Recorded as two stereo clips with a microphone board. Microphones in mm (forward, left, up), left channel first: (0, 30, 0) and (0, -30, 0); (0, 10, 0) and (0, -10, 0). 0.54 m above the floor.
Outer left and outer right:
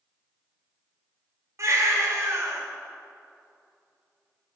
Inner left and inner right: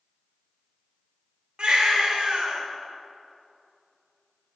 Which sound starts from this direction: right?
A baby crying, at 1.6 s.